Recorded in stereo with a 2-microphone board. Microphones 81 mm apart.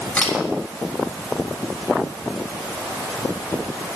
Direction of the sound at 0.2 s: 20° left (ahead or behind).